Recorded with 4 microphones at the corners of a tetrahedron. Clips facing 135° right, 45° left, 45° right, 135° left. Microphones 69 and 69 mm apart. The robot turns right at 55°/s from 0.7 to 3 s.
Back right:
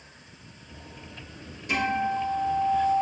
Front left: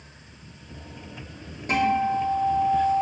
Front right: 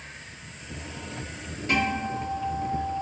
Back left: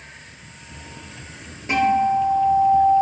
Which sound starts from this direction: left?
A guitar, at 1.7 s.